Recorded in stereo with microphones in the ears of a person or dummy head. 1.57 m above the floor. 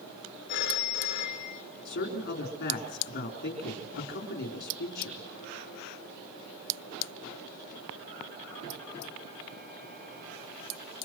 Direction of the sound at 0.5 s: 50° left (ahead or behind).